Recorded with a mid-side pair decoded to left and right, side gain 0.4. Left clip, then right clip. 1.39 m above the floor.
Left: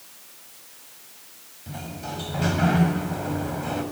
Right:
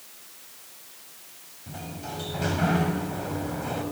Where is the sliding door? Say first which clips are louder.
Left 2 dB; 20° left, 6.5 m.